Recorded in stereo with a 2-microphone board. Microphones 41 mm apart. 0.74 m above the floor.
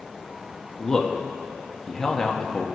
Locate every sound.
0.8 s a man speaking: 10° left (ahead or behind), 0.9 m